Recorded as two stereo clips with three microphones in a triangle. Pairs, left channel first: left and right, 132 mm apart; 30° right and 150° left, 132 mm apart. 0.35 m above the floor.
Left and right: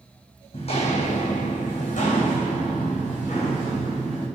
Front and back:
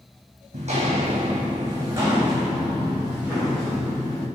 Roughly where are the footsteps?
Behind left.